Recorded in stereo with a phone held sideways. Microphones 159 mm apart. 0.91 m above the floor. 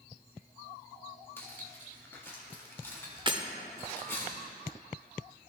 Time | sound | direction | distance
1.4 | cutlery clinking | 15° left (ahead or behind) | 1.4 m
3.3 | breaking glass | 30° right (ahead or behind) | 0.6 m